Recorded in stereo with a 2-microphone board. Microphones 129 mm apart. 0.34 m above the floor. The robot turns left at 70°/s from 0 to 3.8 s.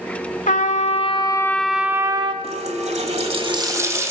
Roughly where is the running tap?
Ahead right.